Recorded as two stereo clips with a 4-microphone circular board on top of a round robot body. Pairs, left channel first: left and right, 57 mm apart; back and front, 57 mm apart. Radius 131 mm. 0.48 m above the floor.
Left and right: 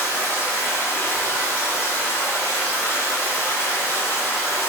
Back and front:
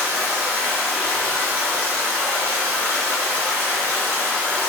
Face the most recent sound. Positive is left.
turn(degrees=50)